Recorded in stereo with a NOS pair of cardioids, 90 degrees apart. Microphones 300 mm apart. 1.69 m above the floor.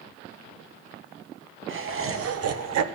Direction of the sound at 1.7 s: 45° right.